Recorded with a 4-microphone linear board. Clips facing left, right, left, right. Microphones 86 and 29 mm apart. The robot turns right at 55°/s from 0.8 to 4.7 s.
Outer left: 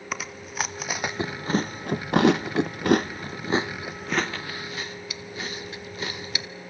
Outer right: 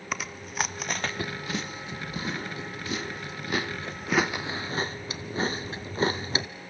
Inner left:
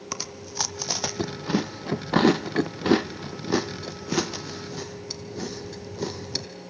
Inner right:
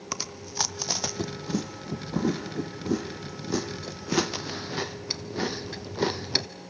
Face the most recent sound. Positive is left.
turn(degrees=-35)  # may be behind; listen again after turning